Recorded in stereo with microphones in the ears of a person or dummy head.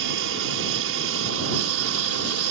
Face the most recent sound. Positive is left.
turn(degrees=-70)  # may be behind; listen again after turning